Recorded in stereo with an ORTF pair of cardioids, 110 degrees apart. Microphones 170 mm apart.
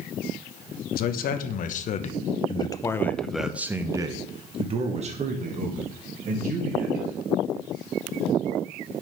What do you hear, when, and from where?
0.9 s a man speaking: 65° left, 1.4 m; by 7.2 s 60° right, 2.5 m